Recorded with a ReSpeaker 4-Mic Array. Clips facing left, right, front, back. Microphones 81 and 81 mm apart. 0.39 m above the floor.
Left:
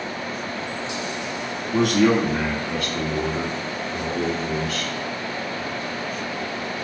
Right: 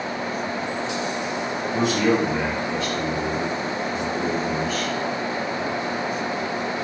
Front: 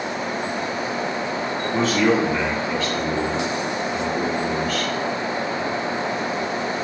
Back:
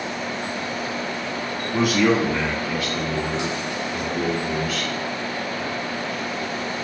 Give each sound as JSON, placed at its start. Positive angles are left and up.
{"t": 1.7, "sound": "a man speaking", "azimuth_deg": 105, "distance_m": 3.0}